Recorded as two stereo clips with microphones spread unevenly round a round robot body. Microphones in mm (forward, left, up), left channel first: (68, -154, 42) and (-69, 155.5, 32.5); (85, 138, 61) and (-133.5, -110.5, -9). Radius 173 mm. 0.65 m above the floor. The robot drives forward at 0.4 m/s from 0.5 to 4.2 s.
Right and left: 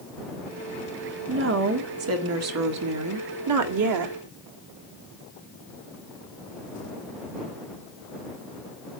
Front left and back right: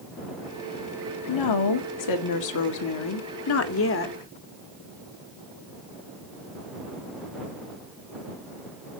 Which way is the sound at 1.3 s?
65° left.